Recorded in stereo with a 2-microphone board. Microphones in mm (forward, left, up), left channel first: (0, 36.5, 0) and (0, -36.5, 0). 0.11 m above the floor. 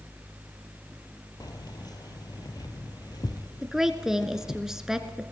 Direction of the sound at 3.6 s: 10° right (ahead or behind).